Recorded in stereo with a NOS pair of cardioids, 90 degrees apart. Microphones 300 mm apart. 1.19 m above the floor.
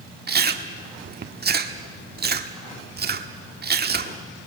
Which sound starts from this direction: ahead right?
Chewing, at 0.3 s.